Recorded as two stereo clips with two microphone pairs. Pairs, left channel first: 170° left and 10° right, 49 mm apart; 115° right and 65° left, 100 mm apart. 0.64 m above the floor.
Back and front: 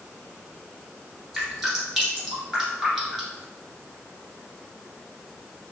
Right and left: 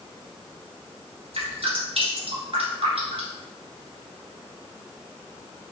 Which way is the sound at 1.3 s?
75° left.